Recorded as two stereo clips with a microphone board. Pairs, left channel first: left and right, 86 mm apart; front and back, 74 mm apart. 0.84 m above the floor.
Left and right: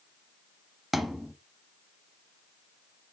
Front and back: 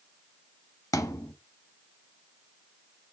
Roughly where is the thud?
Ahead.